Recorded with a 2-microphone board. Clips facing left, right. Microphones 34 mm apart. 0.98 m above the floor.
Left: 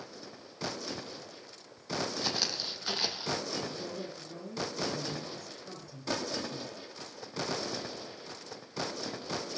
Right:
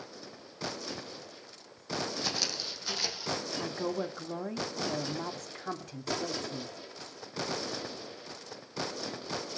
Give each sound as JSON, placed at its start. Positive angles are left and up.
{"t": 2.2, "sound": "footsteps", "side_deg": 15, "distance_m": 3.0}
{"t": 3.6, "sound": "a woman speaking", "side_deg": -80, "distance_m": 2.0}